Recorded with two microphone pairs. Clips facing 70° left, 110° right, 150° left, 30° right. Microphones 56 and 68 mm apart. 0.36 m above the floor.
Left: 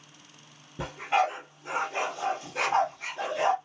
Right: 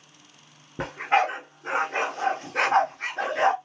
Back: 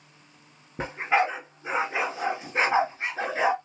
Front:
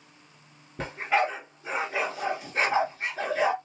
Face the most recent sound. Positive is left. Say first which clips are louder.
# right 3 dB, back 2 dB
turn(degrees=-145)